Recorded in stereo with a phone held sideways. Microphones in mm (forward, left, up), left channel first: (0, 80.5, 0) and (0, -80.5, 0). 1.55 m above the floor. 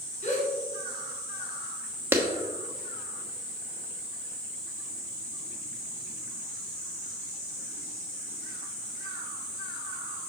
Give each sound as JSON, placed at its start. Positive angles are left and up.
{"t": 0.2, "sound": "a gasp", "side_deg": 50, "distance_m": 2.5}
{"t": 2.1, "sound": "a clap", "side_deg": -15, "distance_m": 0.9}